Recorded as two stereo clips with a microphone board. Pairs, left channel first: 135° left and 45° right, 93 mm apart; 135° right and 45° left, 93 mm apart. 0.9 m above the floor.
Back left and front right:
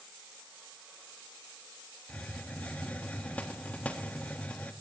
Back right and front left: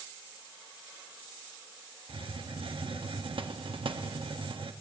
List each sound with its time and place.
2.1 s a hiss: 60° left, 1.1 m